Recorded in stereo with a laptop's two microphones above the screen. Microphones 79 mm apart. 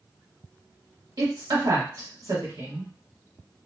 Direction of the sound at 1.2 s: 50° right (ahead or behind).